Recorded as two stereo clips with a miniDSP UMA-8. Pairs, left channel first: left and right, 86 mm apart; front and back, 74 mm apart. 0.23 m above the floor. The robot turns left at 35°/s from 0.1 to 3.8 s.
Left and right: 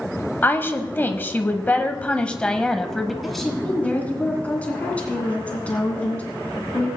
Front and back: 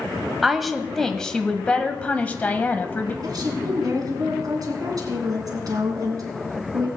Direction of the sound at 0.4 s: 100° left.